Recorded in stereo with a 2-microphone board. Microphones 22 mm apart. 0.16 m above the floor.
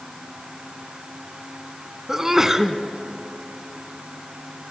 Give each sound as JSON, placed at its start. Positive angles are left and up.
{"t": 2.1, "sound": "a sneeze", "side_deg": -20, "distance_m": 1.3}